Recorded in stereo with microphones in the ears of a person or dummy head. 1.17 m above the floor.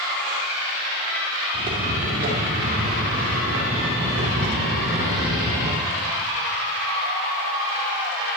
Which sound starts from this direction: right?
Footsteps, at 1.5 s.